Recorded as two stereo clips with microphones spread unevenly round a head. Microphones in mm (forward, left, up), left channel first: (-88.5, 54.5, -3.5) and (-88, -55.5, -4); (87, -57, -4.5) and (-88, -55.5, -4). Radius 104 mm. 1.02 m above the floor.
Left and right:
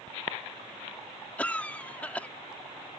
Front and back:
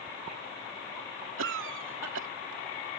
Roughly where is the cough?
Behind.